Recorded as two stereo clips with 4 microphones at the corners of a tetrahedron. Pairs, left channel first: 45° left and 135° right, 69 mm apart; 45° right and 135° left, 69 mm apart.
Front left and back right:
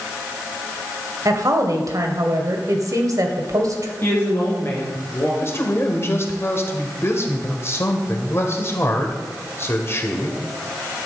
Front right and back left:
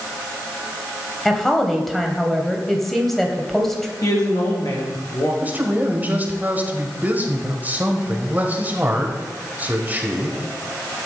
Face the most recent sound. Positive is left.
turn(degrees=80)